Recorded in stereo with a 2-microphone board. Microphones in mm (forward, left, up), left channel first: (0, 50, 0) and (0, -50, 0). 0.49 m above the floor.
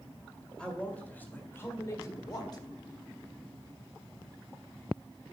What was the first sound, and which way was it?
A man speaking, 10° left (ahead or behind).